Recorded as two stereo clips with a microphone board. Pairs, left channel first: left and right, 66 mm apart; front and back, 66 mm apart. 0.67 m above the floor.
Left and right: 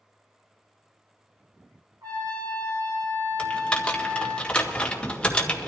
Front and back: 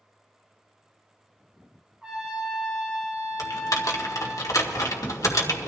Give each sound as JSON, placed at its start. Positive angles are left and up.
{"t": 2.0, "sound": "a trumpet", "azimuth_deg": -105, "distance_m": 4.5}
{"t": 3.4, "sound": "typing on a keyboard", "azimuth_deg": 20, "distance_m": 1.7}